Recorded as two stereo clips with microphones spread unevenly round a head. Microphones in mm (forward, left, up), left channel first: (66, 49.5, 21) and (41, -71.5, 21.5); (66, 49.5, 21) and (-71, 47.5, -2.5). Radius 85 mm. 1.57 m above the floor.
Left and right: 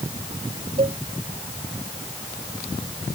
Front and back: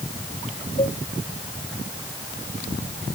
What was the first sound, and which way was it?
A cowbell, 55° right.